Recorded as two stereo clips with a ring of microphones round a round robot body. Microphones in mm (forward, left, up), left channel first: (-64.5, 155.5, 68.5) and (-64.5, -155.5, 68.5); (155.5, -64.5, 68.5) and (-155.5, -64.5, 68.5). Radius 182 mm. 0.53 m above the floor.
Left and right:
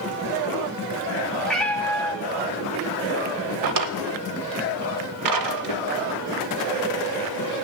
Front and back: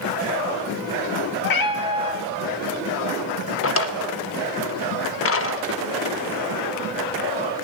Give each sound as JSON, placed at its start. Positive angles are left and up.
{"t": 1.4, "sound": "a cat meowing", "azimuth_deg": 5, "distance_m": 0.8}
{"t": 3.6, "sound": "a drawer", "azimuth_deg": -50, "distance_m": 0.5}